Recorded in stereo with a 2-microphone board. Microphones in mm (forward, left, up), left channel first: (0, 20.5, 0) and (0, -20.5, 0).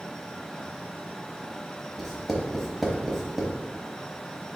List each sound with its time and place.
2.0 s writing: centre (ahead or behind), 0.7 m